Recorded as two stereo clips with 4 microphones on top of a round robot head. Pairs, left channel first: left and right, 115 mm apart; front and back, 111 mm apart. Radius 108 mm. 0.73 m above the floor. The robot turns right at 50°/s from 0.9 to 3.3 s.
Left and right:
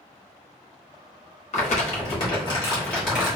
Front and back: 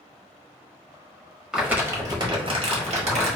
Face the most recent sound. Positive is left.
turn(degrees=-175)